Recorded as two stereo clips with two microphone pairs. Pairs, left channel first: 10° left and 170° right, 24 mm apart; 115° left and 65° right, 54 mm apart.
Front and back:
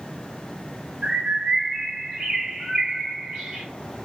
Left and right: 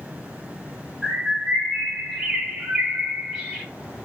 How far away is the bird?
About 1.6 m.